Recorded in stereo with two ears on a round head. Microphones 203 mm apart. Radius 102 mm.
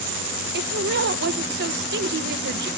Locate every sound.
0.5 s a woman speaking: 45° right (ahead or behind), 1.3 m